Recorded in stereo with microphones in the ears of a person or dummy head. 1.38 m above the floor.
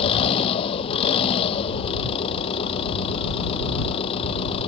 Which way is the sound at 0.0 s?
35° left (ahead or behind).